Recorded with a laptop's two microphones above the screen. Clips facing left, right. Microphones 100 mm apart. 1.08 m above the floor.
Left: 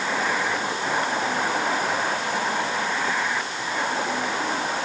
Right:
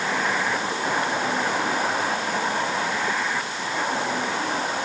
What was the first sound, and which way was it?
Only background noise.